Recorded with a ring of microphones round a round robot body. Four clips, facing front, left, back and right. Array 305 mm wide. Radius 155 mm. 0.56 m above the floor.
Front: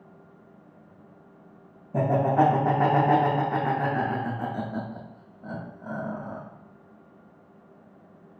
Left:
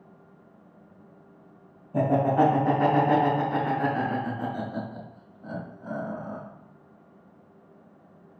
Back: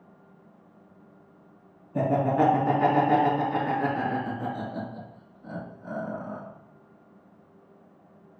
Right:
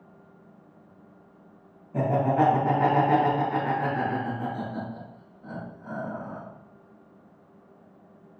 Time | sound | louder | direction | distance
1.9 | laughter | left 1 dB, front 1 dB | 20° left | 2.5 m